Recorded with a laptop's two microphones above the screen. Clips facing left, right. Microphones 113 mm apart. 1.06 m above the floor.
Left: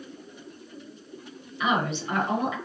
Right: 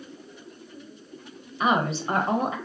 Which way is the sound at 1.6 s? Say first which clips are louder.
Right 2 dB; 35° right (ahead or behind).